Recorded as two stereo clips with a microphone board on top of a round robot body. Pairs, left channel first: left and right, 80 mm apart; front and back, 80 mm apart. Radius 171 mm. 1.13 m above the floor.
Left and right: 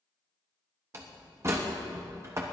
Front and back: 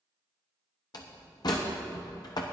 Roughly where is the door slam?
Ahead right.